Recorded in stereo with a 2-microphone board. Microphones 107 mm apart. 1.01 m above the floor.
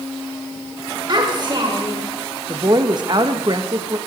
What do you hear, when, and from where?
1.1 s a child speaking: 45° right (ahead or behind), 1.8 m
2.5 s a woman speaking: 40° right (ahead or behind), 0.8 m